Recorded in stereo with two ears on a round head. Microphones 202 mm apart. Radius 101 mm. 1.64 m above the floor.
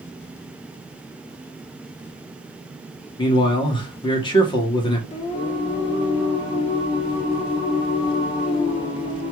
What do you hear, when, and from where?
3.2 s a man speaking: 20° left (ahead or behind), 1.4 m
5.1 s singing: 20° left (ahead or behind), 1.9 m